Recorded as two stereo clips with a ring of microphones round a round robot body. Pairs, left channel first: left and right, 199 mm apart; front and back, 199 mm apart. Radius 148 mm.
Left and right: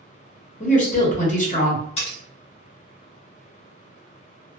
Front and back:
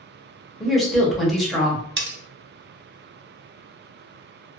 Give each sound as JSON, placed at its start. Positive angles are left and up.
{"t": 0.6, "sound": "a woman speaking", "azimuth_deg": 90, "distance_m": 1.2}
{"t": 2.0, "sound": "cutlery clinking", "azimuth_deg": 155, "distance_m": 0.8}